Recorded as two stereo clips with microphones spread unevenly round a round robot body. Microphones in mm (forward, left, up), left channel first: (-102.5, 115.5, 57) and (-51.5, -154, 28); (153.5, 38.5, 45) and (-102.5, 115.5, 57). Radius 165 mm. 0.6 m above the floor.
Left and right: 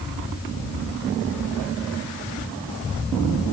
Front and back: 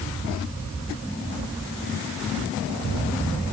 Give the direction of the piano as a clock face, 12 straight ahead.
I don't hear a piano.